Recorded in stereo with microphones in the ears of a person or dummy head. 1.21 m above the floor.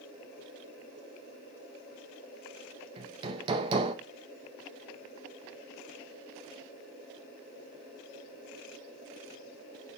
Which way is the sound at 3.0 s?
25° right (ahead or behind).